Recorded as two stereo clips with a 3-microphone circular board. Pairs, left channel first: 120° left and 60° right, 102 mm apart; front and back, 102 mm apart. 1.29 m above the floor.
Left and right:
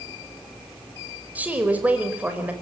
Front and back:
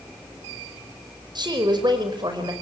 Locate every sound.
1.4 s a woman speaking: 135° right, 5 m